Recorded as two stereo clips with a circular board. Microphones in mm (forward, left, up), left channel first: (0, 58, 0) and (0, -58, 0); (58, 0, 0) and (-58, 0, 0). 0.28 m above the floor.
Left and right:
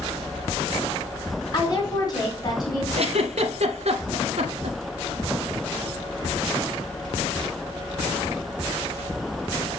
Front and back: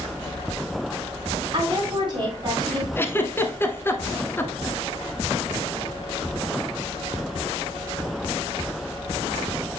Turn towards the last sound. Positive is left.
turn(degrees=-70)